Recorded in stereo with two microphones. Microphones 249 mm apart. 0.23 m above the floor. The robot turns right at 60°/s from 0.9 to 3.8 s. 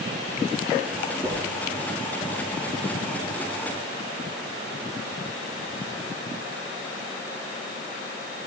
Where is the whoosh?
15° right (ahead or behind), 7 m; by 1.4 s 5° right (ahead or behind), 7 m.